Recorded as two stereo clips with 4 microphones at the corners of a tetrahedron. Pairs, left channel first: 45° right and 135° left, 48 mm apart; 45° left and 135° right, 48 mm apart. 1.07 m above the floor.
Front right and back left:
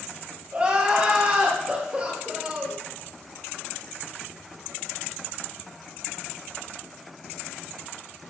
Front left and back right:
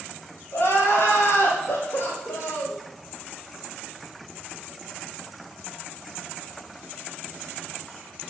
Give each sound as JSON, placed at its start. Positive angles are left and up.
{"t": 0.5, "sound": "crying", "azimuth_deg": 70, "distance_m": 2.0}